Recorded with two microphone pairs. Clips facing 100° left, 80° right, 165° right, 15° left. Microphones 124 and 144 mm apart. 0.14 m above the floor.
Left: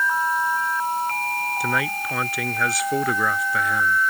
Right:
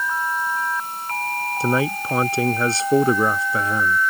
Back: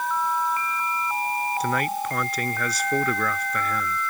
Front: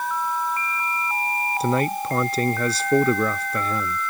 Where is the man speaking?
35° right.